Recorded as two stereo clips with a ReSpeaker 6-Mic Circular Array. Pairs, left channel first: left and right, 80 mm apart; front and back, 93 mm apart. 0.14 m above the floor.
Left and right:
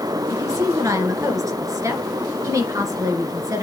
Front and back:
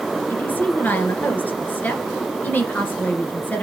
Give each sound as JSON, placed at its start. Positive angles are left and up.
{"t": 0.3, "sound": "a woman speaking", "azimuth_deg": -65, "distance_m": 1.7}